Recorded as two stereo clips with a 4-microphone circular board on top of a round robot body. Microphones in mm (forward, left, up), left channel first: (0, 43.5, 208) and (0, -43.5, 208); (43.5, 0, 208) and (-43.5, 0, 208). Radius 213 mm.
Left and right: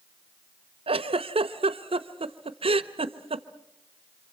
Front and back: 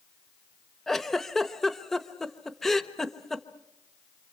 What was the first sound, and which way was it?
A giggle, 85° right.